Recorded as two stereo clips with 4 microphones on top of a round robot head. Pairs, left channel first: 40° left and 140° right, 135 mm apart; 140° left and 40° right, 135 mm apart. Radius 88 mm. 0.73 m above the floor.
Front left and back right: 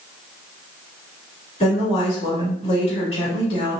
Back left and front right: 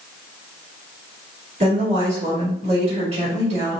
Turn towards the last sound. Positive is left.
turn(degrees=0)